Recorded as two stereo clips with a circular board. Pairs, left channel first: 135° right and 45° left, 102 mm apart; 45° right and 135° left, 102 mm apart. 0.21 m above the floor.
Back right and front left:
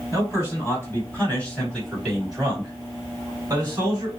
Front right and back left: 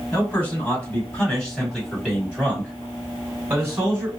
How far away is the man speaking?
About 1.9 m.